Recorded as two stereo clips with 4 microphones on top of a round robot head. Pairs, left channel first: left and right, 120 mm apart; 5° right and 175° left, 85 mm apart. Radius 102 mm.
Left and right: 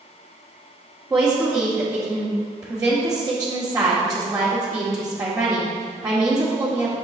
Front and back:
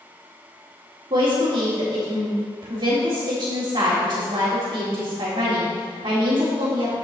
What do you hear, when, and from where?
1.1 s a woman speaking: 150° right, 1.9 m